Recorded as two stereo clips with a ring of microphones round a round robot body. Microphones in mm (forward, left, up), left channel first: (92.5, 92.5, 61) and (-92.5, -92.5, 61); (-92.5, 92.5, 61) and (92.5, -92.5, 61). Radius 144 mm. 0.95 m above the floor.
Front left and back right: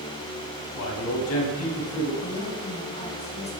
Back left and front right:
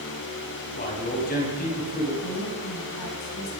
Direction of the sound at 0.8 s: 75° left.